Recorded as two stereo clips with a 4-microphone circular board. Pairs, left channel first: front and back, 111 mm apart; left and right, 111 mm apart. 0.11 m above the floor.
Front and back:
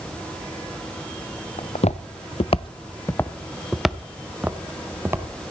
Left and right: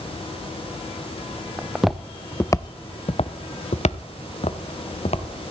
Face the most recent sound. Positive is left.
turn(degrees=110)